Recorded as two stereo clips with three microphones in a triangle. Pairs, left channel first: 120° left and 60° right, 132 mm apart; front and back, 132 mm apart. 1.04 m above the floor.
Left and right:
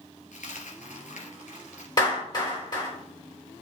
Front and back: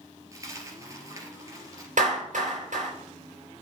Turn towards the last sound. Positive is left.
turn(degrees=175)